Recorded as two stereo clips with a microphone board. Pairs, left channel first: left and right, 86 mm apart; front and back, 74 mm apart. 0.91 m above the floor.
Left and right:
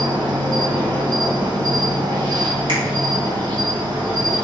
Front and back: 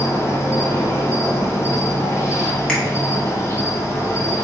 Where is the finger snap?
80° right, 1.6 m.